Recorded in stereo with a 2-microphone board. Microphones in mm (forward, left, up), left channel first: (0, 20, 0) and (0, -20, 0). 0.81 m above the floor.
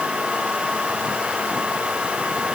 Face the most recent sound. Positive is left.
No sound to turn to.